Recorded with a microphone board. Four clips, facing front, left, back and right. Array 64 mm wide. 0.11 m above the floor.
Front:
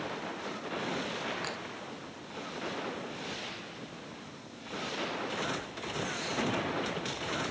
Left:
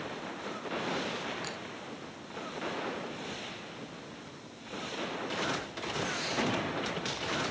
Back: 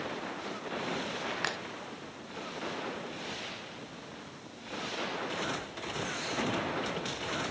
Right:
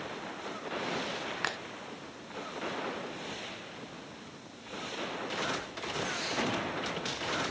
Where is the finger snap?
125° right.